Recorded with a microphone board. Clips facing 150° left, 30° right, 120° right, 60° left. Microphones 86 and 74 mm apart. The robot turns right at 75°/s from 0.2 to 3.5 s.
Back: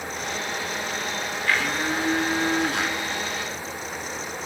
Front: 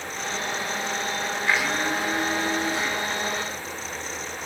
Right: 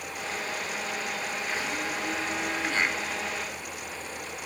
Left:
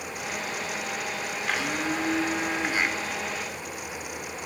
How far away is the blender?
About 4 m.